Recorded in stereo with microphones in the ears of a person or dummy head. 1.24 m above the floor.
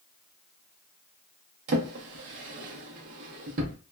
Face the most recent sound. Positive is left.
turn(degrees=-50)  # may be behind; listen again after turning